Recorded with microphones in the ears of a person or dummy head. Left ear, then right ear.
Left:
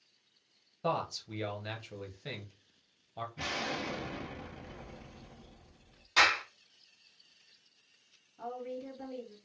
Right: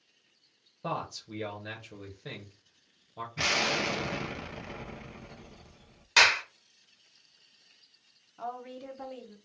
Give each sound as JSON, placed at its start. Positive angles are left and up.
{"t": 0.8, "sound": "a man speaking", "side_deg": 20, "distance_m": 0.8}
{"t": 3.4, "sound": "an explosion", "side_deg": -50, "distance_m": 0.6}
{"t": 6.2, "sound": "a clap", "side_deg": -50, "distance_m": 1.6}
{"t": 8.4, "sound": "a woman speaking", "side_deg": -40, "distance_m": 0.9}